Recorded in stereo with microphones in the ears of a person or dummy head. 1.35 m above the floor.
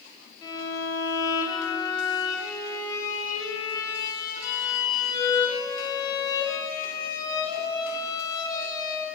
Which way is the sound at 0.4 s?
20° left (ahead or behind).